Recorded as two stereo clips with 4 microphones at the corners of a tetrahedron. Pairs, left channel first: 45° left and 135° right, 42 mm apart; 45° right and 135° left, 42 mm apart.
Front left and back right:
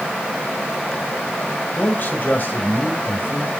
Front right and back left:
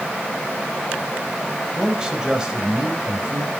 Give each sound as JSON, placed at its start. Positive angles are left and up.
{"t": 1.8, "sound": "a man speaking", "azimuth_deg": 65, "distance_m": 2.0}